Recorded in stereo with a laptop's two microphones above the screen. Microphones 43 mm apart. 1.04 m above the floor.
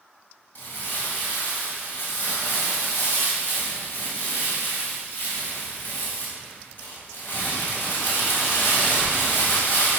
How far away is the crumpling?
About 2 m.